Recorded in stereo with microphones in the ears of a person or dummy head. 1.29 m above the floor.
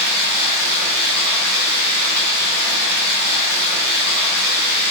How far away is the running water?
About 1.7 m.